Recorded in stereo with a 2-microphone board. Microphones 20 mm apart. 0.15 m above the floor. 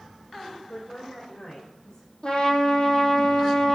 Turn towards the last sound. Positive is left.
turn(degrees=40)  # may be behind; listen again after turning